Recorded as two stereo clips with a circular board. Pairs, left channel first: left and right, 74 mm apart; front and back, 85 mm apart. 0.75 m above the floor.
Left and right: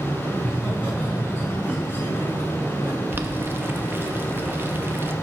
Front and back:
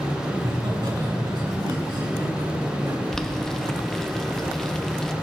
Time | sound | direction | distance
0.3 | laughter | 165° right | 6.5 m
3.1 | boiling | 75° right | 0.7 m